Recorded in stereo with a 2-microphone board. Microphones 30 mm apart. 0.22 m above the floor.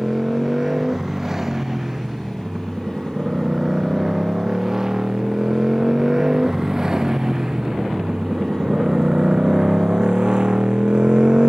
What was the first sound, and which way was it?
A motorcycle, 15° right (ahead or behind).